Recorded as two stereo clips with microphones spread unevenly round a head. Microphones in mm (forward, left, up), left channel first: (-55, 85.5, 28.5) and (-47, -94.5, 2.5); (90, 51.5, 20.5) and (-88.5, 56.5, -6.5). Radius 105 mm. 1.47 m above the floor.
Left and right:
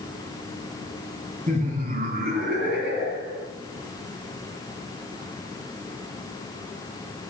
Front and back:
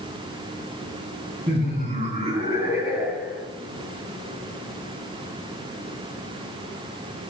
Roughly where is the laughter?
Behind right.